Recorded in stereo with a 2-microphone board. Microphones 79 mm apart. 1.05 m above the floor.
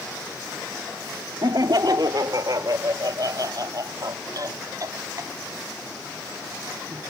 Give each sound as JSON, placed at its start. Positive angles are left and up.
{"t": 1.4, "sound": "laughter", "side_deg": -65}